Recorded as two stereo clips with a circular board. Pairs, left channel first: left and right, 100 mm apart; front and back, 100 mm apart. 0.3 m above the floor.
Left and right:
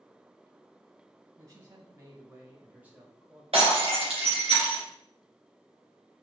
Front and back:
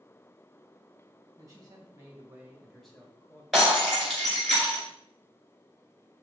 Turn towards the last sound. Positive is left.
turn(degrees=-90)